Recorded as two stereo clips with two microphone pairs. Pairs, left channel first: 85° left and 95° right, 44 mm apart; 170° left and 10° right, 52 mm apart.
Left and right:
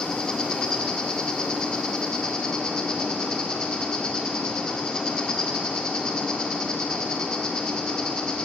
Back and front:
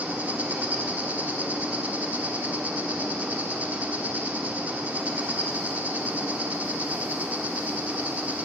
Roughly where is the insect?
Ahead.